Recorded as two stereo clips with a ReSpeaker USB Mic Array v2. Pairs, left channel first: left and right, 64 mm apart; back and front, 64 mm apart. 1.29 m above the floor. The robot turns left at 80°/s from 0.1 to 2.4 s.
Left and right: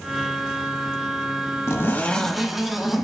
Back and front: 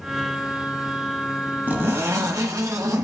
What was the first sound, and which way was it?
A zipper, 55° left.